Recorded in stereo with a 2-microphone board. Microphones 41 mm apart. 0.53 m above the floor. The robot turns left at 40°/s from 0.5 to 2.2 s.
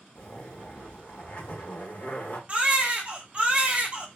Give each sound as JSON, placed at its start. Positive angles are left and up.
{"t": 0.1, "sound": "a zipper", "azimuth_deg": 125, "distance_m": 1.0}
{"t": 2.5, "sound": "a baby crying", "side_deg": -30, "distance_m": 0.6}